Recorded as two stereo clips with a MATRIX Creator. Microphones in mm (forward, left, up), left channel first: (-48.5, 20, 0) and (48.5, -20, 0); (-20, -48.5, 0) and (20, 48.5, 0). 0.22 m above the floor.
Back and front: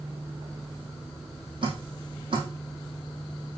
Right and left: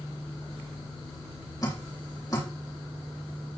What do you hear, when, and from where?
1.6 s dripping: 55° right, 3.5 m